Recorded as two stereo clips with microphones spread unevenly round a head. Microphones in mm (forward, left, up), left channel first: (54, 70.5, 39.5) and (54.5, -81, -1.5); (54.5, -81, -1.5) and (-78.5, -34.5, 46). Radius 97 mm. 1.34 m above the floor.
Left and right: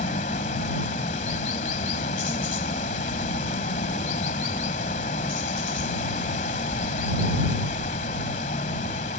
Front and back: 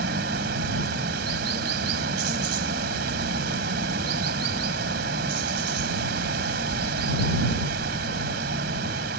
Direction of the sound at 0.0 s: 145° left.